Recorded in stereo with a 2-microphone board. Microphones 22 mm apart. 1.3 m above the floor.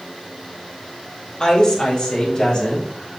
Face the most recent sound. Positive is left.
turn(degrees=35)  # may be behind; listen again after turning